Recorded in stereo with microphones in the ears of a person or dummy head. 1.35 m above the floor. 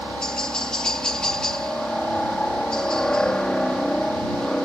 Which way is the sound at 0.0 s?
5° left (ahead or behind).